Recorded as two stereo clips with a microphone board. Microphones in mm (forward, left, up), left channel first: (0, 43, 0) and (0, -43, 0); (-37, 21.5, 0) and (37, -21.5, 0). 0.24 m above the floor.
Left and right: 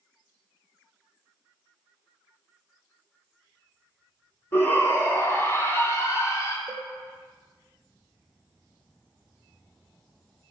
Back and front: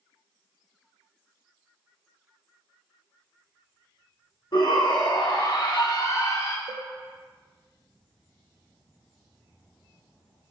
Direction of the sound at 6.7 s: Straight behind.